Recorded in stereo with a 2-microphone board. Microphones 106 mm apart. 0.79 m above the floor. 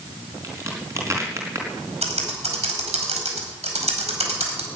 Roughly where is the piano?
I don't hear a piano.